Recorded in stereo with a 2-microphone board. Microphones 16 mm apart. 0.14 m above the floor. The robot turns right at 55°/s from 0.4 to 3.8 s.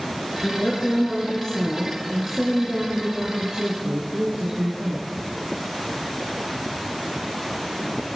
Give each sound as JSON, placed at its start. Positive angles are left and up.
{"t": 0.4, "sound": "a woman speaking", "azimuth_deg": 90, "distance_m": 2.0}